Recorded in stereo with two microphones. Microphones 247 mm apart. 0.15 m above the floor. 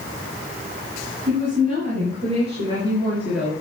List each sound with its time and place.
1.3 s a woman speaking: 30° right (ahead or behind), 4 m; by 3.5 s centre (ahead or behind), 2.5 m